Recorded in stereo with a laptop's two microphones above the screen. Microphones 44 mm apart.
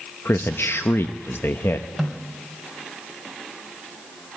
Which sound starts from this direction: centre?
A snare drum, at 2.0 s.